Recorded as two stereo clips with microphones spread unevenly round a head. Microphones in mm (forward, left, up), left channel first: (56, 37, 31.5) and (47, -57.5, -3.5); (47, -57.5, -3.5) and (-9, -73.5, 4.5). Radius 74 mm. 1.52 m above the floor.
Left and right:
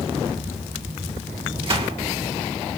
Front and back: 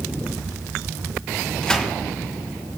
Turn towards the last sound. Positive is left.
turn(degrees=-65)